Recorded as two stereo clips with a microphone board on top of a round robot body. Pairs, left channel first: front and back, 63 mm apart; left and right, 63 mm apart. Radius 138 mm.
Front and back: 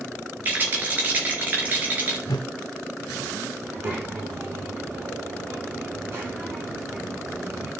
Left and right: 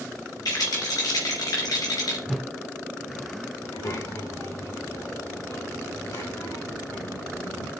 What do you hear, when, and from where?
0.5 s a rattle: 115° left, 3.5 m
2.3 s a whoosh: straight ahead, 0.7 m
3.6 s a child speaking: 125° left, 5 m